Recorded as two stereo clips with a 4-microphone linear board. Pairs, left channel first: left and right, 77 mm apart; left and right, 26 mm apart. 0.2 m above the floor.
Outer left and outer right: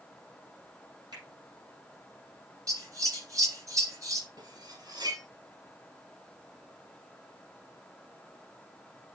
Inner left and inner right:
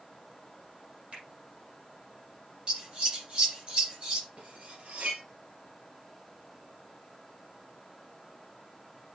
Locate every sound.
1.1 s a finger snap: 60° right (ahead or behind), 5.5 m
2.7 s scissors: 45° right (ahead or behind), 3 m
4.4 s cutlery clinking: 60° right (ahead or behind), 2.5 m